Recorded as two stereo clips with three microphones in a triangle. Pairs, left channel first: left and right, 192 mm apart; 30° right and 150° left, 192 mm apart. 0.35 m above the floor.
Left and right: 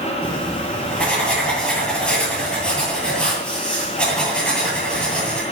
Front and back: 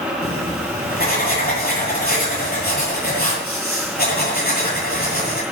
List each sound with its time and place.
0.2 s writing: 5° left, 9.5 m